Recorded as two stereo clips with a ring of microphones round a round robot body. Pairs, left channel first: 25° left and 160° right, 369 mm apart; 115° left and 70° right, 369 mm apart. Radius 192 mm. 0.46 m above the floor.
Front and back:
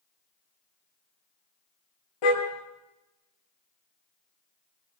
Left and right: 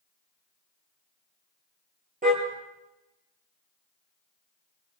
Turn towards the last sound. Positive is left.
turn(degrees=0)